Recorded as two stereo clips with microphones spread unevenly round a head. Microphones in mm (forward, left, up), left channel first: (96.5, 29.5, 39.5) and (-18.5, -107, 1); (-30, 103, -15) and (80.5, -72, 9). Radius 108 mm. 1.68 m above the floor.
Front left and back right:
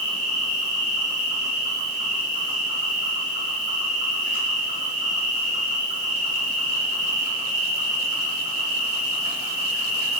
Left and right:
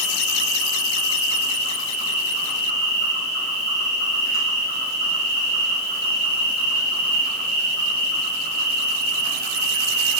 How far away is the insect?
About 1.5 m.